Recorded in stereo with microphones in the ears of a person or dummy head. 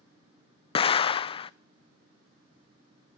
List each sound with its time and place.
0.8 s an explosion: 35° left (ahead or behind), 0.5 m